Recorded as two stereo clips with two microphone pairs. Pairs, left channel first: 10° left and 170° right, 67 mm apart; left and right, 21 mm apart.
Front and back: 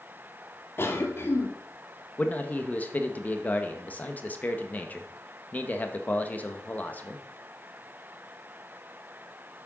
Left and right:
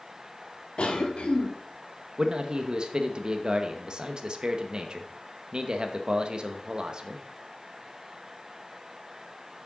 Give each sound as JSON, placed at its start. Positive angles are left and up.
{"t": 0.8, "sound": "a cough", "azimuth_deg": 65, "distance_m": 1.7}
{"t": 2.2, "sound": "a man speaking", "azimuth_deg": -45, "distance_m": 1.1}